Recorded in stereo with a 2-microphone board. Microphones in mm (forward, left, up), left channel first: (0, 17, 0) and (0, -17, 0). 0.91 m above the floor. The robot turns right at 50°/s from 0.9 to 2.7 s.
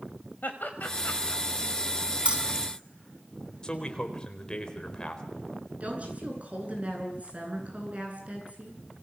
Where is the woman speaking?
40° right (ahead or behind), 10 m.